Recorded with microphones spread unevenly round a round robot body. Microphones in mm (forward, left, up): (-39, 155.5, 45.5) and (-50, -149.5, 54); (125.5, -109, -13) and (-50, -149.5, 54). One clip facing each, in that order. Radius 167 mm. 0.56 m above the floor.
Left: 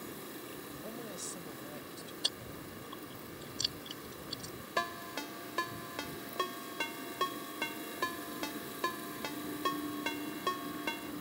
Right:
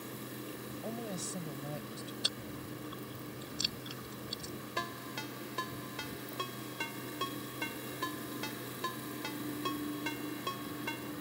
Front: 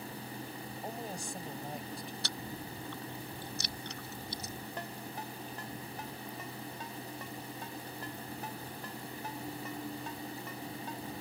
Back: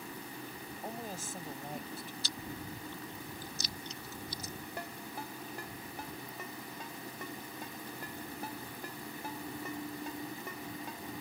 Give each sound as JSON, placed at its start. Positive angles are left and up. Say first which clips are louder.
{"t": 0.8, "sound": "a woman speaking", "louder": "right 6 dB, even", "azimuth_deg": -75}
{"t": 2.2, "sound": "chewing", "louder": "right 3 dB, front 1 dB", "azimuth_deg": -10}
{"t": 4.8, "sound": "a ringtone", "louder": "left 1 dB, even", "azimuth_deg": 105}